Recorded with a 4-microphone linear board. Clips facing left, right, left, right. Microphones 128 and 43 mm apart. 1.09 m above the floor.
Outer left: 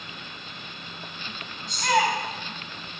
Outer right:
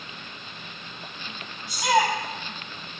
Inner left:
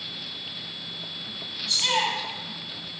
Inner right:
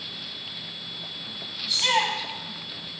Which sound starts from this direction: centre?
A shout, at 1.7 s.